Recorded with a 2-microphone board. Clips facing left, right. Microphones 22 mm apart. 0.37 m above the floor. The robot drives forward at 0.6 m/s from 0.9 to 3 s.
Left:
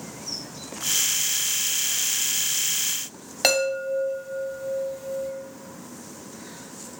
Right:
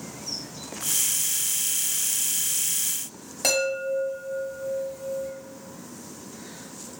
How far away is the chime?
About 0.8 m.